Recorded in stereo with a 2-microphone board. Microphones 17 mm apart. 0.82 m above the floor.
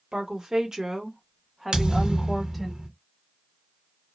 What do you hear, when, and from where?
0.1 s a woman speaking: 50° right (ahead or behind), 1.0 m; by 2.7 s 5° right (ahead or behind), 1.3 m
1.7 s a thud: 60° right (ahead or behind), 1.0 m